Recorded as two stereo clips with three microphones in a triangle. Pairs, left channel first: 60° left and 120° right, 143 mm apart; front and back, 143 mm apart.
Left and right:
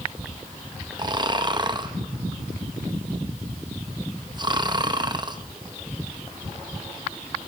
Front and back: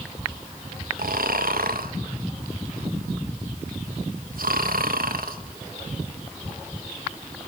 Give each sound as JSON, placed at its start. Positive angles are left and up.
{"t": 1.0, "sound": "snoring", "azimuth_deg": 180, "distance_m": 0.8}